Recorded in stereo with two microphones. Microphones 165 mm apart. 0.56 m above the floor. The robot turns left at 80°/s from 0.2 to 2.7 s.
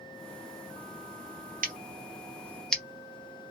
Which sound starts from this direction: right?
Scissors, at 1.6 s.